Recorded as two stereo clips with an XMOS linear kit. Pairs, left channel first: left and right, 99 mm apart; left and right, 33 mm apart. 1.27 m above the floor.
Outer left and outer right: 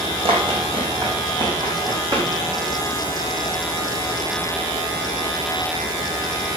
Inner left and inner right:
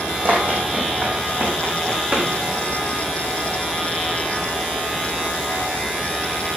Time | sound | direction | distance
0.2 | running footsteps | 60° right (ahead or behind) | 3 m